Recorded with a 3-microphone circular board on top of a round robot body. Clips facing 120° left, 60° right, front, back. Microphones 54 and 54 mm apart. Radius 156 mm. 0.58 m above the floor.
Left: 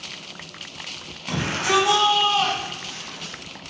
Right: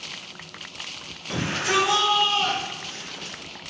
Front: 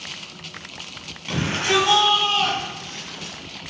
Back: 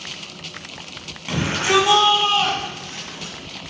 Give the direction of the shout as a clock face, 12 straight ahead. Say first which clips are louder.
Left 3 dB, back 2 dB; 9 o'clock.